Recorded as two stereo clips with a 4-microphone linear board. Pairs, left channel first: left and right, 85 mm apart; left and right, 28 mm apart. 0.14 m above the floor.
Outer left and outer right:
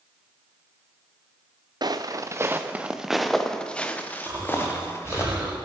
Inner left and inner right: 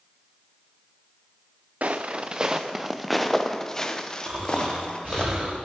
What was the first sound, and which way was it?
Footsteps, 55° right (ahead or behind).